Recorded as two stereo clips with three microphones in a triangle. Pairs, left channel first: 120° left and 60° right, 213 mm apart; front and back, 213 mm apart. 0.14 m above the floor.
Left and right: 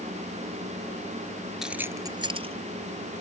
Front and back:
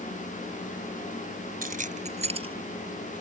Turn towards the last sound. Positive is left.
turn(degrees=-110)